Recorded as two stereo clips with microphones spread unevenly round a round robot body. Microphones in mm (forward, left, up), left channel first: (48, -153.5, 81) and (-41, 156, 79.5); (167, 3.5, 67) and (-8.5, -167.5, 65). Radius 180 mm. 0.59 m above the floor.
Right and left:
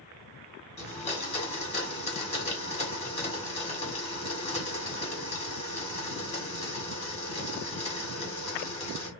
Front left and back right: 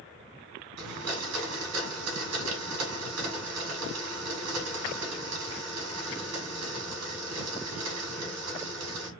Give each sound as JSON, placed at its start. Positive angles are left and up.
{"t": 0.8, "sound": "a blender", "azimuth_deg": -145, "distance_m": 2.0}